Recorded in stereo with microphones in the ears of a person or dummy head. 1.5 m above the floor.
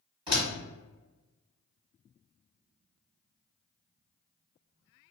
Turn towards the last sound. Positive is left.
turn(degrees=-25)  # may be behind; listen again after turning